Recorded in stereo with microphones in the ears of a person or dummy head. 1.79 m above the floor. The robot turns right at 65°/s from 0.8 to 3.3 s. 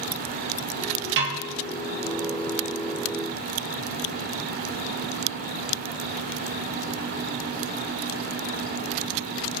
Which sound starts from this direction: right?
A snare drum, at 1.2 s.